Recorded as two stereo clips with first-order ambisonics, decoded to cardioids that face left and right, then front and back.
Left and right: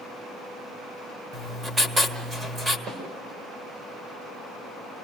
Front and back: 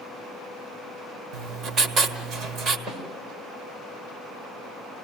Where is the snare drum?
125° right, 6 m.